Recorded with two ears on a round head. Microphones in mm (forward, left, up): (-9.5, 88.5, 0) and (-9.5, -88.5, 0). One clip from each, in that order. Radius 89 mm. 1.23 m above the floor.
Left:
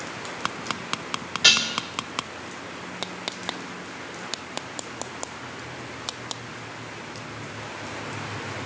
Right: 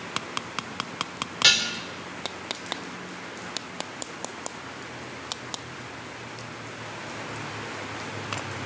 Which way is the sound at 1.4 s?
20° right (ahead or behind).